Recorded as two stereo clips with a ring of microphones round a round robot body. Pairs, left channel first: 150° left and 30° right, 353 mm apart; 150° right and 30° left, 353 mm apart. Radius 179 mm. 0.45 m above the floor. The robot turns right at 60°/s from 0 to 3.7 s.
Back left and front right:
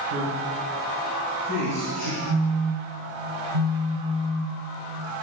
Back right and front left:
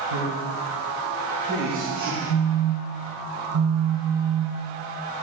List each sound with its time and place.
0.1 s a man speaking: 10° left, 5 m; by 2.2 s 135° left, 5 m
2.3 s a phone buzzing: 100° right, 0.8 m; by 4.6 s 15° right, 0.8 m